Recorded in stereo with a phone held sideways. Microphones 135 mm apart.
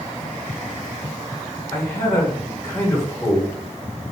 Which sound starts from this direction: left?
A man speaking, at 1.7 s.